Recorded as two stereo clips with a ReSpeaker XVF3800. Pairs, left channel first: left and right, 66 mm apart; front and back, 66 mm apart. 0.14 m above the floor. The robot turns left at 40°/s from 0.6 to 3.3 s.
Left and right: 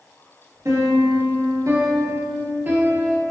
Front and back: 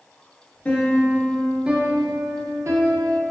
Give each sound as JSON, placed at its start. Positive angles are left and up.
{"t": 0.7, "sound": "a piano", "azimuth_deg": -65, "distance_m": 0.7}